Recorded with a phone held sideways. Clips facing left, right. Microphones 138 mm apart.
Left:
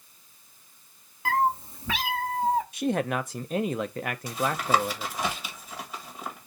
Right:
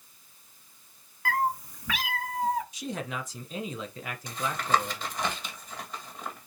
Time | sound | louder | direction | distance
1.2 | a cat meowing | left 3 dB | 25° left (ahead or behind) | 0.9 m
2.7 | a man speaking | left 8 dB | 60° left (ahead or behind) | 0.5 m
4.3 | tapping | left 2 dB | 5° left (ahead or behind) | 1.5 m